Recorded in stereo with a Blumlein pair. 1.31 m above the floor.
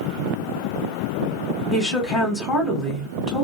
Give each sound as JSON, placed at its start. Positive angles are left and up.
{"t": 1.7, "sound": "a woman speaking", "azimuth_deg": 20, "distance_m": 1.3}